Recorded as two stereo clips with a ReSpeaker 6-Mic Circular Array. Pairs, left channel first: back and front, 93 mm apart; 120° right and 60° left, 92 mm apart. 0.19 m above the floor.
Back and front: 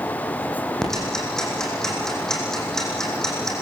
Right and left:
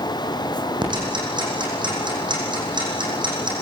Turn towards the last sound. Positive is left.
turn(degrees=95)